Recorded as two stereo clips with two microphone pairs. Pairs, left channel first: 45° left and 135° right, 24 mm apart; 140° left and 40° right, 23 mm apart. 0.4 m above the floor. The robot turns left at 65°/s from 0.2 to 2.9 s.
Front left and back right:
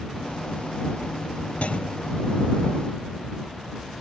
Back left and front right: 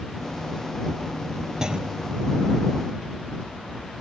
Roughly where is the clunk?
Ahead.